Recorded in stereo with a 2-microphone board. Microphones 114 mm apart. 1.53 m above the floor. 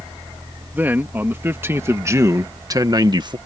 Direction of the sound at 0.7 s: 15° right (ahead or behind).